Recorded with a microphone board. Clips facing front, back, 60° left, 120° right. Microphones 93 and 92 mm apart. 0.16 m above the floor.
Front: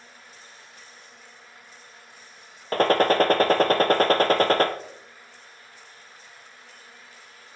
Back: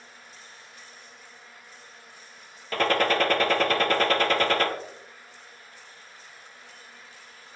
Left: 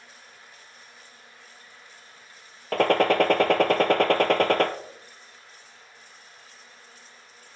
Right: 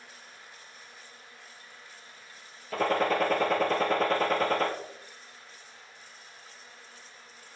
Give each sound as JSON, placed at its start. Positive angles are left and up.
{"t": 2.7, "sound": "a gunshot", "azimuth_deg": 50, "distance_m": 1.2}